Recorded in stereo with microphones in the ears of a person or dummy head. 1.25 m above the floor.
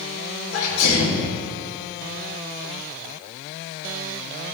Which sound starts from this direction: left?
A sneeze, at 0.5 s.